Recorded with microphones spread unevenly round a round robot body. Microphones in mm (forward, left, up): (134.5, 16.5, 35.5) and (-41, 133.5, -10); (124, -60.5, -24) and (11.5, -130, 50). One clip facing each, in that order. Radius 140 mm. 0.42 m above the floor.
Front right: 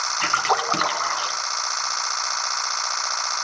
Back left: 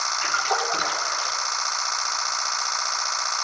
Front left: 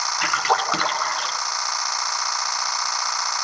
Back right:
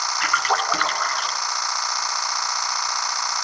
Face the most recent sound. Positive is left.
turn(degrees=-20)